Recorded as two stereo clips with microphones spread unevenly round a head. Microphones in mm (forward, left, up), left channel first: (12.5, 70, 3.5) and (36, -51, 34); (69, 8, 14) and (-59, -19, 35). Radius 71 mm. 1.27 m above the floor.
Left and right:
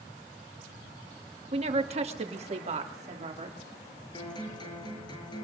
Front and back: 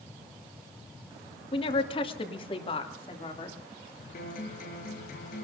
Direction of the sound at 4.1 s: 45° left.